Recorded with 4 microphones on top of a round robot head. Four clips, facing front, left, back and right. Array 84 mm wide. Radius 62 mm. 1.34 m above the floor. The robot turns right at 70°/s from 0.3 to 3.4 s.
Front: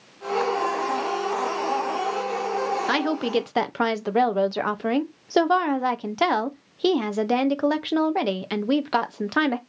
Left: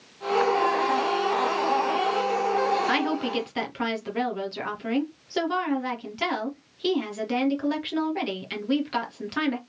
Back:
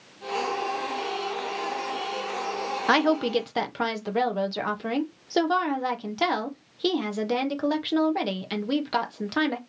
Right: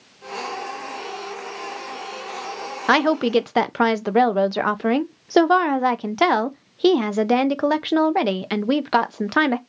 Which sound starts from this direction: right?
A woman speaking, at 2.9 s.